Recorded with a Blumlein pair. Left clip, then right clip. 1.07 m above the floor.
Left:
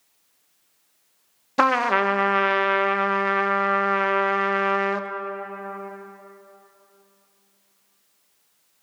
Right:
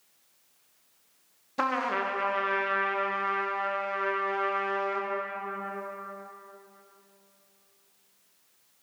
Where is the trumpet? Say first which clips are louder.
Left 9 dB; 25° left, 0.6 m.